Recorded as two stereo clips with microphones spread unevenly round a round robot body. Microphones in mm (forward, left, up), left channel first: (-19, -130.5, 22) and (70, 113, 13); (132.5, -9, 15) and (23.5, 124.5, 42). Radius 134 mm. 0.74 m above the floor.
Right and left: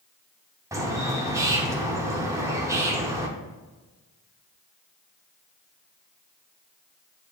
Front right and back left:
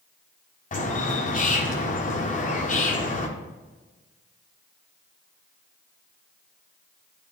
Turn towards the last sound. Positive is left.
turn(degrees=-10)